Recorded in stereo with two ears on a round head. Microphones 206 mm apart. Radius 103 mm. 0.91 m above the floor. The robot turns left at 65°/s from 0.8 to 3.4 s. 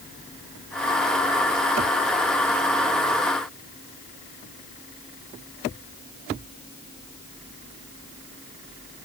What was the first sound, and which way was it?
Only background noise.